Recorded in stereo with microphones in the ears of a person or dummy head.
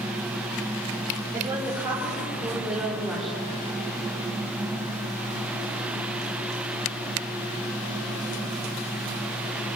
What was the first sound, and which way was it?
A woman speaking, 20° right (ahead or behind).